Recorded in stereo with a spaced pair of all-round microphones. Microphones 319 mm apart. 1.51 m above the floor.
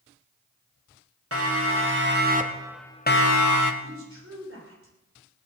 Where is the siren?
45° right (ahead or behind), 3 m; by 3.7 s 70° left (ahead or behind), 1.4 m.